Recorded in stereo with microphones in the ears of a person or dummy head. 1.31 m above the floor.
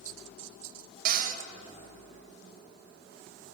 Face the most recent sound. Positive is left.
turn(degrees=-50)  # may be behind; listen again after turning